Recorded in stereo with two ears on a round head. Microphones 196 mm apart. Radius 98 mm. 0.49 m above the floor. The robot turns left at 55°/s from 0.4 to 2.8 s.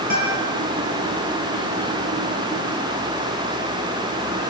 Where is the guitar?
40° right (ahead or behind), 9 m; by 0.5 s 50° right (ahead or behind), 9 m.